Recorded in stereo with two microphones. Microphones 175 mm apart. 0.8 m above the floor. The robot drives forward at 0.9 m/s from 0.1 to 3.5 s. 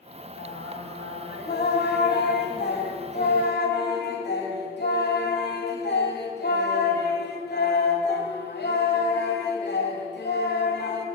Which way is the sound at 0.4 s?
65° left (ahead or behind).